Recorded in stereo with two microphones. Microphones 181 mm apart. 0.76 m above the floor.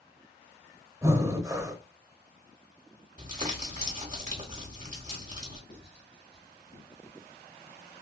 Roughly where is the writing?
Left.